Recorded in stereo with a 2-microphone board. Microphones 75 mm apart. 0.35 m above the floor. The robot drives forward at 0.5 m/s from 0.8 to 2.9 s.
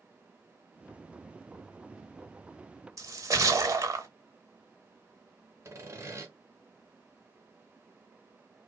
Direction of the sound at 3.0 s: 50° right (ahead or behind).